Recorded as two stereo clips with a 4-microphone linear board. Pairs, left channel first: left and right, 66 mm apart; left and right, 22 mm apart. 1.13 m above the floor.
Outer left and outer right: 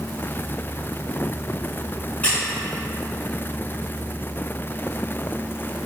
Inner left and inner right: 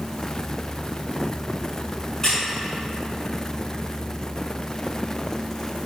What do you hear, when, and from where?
2.2 s a squeak: 25° left (ahead or behind), 1.3 m